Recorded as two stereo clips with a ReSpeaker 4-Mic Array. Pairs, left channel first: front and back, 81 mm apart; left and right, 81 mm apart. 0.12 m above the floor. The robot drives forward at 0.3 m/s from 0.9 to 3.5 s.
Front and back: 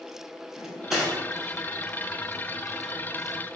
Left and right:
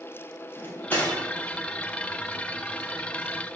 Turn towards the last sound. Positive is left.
turn(degrees=160)